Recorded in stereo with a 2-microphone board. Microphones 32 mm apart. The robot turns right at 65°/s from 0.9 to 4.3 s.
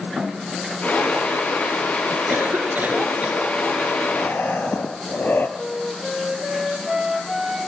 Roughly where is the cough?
Right.